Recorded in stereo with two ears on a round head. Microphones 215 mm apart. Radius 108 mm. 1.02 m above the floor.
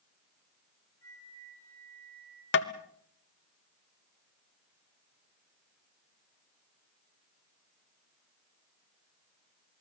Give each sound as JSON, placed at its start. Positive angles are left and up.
{"t": 1.0, "sound": "a flute", "side_deg": 15, "distance_m": 7.5}
{"t": 2.5, "sound": "tapping", "side_deg": 50, "distance_m": 1.1}